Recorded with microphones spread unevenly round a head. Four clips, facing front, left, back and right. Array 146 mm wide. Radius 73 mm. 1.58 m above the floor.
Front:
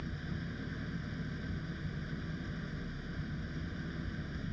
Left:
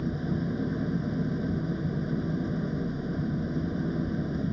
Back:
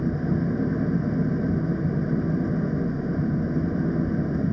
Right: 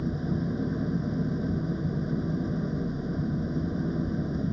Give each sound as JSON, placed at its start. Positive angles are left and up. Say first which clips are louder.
{"t": 0.0, "sound": "an engine running", "louder": "right 1 dB, back 18 dB", "azimuth_deg": 180}